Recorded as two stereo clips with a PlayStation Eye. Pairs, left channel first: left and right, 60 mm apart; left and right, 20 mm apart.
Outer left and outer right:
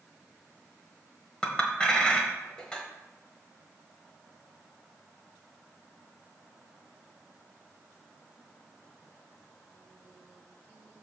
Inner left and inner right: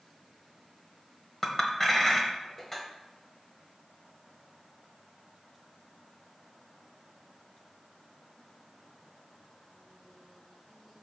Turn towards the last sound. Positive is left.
turn(degrees=15)  # may be behind; listen again after turning